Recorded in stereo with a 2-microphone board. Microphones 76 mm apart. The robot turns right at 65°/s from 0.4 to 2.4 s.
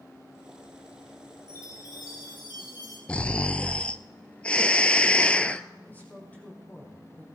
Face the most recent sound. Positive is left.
turn(degrees=20)  # may be behind; listen again after turning